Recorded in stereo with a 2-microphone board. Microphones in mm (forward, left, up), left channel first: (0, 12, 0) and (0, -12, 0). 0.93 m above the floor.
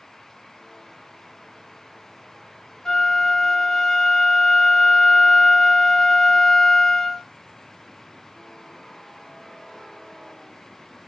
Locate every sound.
2.9 s a flute: 25° left (ahead or behind), 0.5 m